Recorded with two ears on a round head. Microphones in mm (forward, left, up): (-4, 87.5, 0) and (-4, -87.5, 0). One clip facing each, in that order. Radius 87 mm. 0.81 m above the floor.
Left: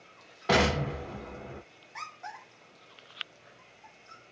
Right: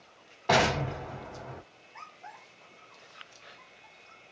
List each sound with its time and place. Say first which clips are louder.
0.5 s an explosion: even; 10° left (ahead or behind), 1.2 m